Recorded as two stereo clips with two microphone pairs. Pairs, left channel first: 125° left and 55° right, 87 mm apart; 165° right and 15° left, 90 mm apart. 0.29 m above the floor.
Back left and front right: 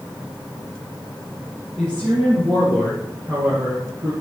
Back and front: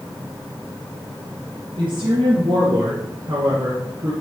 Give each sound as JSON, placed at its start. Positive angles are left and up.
{"t": 1.8, "sound": "a woman speaking", "azimuth_deg": 20, "distance_m": 5.5}